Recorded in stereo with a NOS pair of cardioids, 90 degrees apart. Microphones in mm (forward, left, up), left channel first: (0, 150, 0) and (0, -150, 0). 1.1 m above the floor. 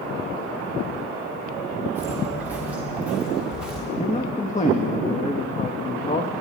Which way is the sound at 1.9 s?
5° right.